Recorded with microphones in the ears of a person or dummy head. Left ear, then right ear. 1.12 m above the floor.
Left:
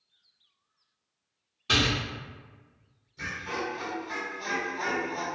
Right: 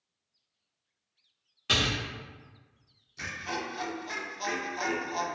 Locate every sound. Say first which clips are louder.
1.7 s a door slam: left 2 dB; 35° right (ahead or behind), 1.5 m
3.2 s laughter: left 2 dB; 25° right (ahead or behind), 0.8 m